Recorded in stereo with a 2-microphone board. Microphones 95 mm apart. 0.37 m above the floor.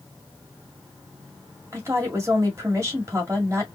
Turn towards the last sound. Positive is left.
turn(degrees=-30)  # may be behind; listen again after turning